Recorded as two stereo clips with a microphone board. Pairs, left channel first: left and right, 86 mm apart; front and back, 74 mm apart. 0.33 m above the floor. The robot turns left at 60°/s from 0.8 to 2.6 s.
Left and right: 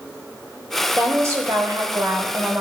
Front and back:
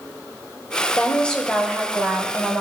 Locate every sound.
0.9 s a woman speaking: 50° right, 1.2 m; by 2.6 s 145° right, 1.2 m